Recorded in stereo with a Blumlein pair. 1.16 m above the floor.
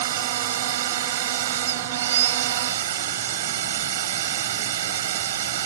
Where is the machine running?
60° right.